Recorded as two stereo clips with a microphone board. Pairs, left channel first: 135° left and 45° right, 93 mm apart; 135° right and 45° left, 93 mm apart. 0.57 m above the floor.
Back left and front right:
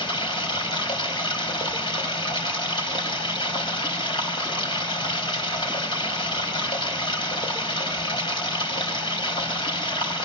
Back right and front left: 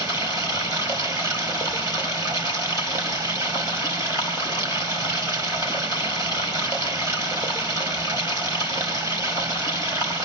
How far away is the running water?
About 3.5 m.